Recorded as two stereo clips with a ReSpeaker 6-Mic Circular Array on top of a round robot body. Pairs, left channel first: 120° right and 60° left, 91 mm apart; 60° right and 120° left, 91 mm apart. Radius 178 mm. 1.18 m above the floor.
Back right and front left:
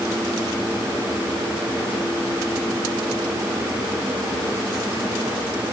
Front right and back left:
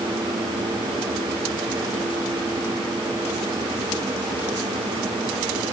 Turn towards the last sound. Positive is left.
No sound to turn to.